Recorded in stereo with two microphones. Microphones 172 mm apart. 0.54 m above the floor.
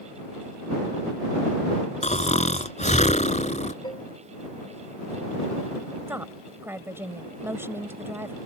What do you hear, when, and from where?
2.0 s snoring: 40° left (ahead or behind)
3.8 s dishes clattering: 25° left (ahead or behind)
6.1 s a woman speaking: 15° right (ahead or behind)